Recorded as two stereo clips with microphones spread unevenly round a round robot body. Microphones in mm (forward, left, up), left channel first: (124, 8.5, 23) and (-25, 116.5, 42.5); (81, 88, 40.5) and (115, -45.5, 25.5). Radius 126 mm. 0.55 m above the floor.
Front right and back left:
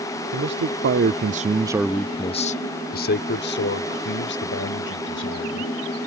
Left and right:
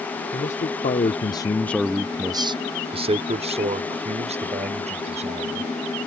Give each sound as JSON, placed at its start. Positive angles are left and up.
{"t": 0.3, "sound": "a man speaking", "azimuth_deg": 145}